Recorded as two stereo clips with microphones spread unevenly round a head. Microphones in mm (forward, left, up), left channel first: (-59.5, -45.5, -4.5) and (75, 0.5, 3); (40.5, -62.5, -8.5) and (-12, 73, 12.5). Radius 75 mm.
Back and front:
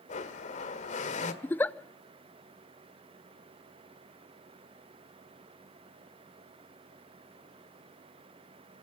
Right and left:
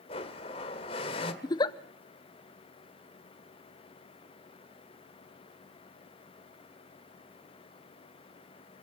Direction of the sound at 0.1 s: 125° right.